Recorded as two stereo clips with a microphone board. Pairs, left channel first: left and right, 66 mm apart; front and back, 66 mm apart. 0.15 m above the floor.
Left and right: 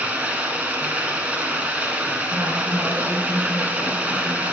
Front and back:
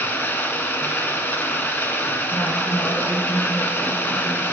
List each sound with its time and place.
0.0 s running water: 35° right, 0.8 m
2.3 s a woman speaking: 55° right, 2 m